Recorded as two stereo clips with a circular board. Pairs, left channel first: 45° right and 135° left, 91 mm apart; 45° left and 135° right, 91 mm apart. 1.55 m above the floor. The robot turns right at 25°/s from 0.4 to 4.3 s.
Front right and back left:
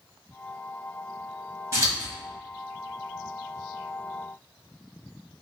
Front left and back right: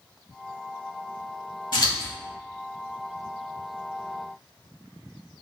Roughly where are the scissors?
Left.